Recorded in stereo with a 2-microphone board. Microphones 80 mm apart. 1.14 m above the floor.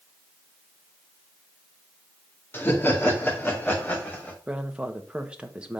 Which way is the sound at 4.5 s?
15° right (ahead or behind).